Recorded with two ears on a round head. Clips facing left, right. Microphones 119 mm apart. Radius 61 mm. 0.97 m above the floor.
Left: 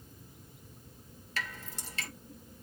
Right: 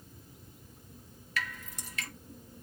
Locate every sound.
1.4 s dripping: 30° left (ahead or behind), 3.5 m